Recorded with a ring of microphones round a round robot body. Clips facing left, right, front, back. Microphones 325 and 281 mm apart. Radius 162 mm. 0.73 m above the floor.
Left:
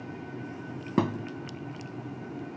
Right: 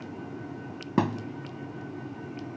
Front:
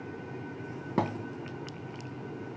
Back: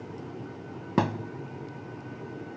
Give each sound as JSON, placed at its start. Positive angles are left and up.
{"t": 1.0, "sound": "a thud", "azimuth_deg": -165}